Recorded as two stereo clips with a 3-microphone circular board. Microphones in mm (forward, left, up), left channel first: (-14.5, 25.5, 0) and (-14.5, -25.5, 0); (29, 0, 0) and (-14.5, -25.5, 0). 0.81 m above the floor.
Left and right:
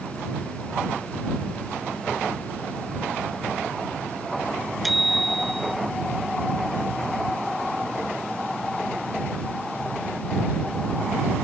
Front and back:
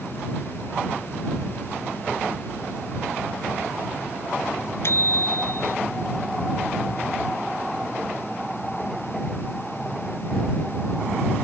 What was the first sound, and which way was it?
A bicycle bell, 5° right.